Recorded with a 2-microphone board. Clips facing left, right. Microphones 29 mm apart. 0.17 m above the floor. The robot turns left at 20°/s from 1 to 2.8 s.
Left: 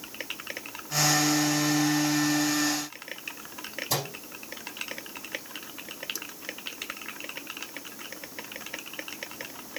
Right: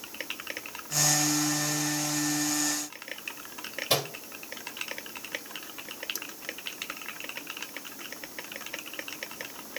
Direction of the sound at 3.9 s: 65° right (ahead or behind).